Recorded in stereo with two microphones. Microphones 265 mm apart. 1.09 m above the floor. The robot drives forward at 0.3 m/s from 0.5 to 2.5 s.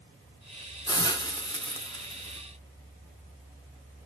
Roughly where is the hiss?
Centre.